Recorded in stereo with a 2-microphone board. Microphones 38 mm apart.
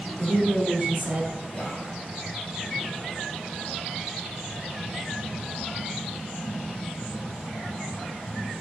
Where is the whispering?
20° left (ahead or behind), 1.2 m.